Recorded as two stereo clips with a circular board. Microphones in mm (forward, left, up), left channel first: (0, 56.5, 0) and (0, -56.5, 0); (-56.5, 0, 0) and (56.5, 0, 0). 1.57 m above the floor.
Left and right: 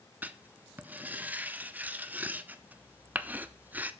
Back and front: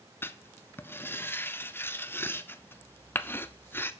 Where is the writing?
140° right, 0.6 m.